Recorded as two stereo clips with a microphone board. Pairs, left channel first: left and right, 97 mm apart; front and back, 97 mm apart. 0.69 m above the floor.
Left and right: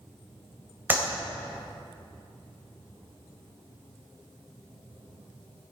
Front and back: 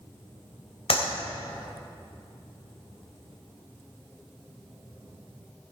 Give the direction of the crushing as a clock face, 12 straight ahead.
No crushing in this recording.